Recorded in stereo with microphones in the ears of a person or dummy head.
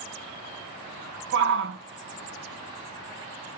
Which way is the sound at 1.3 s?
60° right (ahead or behind).